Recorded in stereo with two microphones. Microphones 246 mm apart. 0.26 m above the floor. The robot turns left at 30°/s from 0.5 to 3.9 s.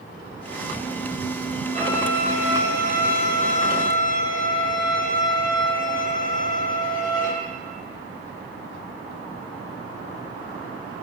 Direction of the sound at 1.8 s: 135° right.